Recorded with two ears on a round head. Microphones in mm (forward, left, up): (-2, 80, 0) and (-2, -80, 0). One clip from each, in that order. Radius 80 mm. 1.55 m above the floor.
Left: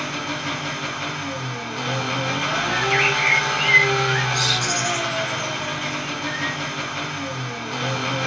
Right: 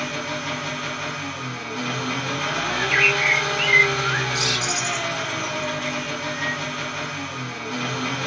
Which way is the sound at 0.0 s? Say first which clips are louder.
Left 1 dB; centre (ahead or behind).